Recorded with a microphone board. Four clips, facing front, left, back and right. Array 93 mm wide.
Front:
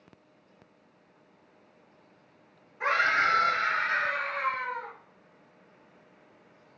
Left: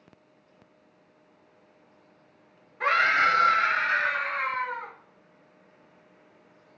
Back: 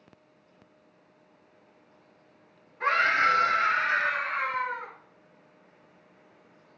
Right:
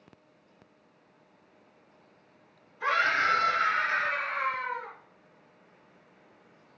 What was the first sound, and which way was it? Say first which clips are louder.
A scream: left 4 dB, back 2 dB; 80° left.